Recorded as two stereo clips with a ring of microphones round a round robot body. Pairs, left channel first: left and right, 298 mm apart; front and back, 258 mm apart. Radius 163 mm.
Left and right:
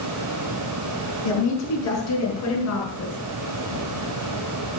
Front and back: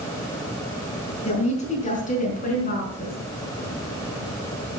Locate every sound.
1.2 s a woman speaking: 65° left, 4.5 m; by 3.2 s 50° left, 5 m